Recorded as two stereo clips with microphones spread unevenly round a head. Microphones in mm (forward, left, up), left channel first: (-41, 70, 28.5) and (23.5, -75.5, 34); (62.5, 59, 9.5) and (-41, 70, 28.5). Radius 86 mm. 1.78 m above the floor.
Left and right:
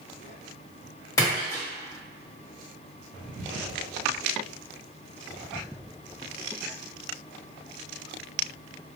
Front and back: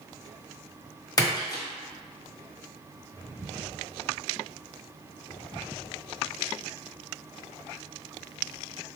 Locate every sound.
1.2 s a splash: 45° left, 1.3 m